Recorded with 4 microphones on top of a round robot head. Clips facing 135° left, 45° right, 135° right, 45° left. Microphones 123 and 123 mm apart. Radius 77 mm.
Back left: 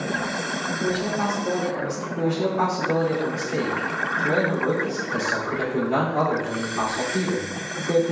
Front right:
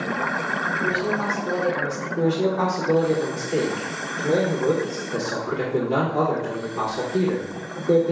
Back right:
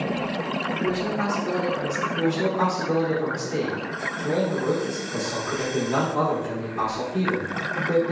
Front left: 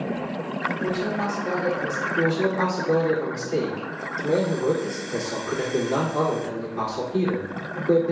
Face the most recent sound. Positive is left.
turn(degrees=20)